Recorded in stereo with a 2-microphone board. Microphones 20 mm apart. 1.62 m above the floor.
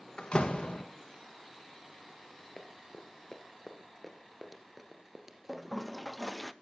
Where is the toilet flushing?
5° left (ahead or behind), 0.6 m.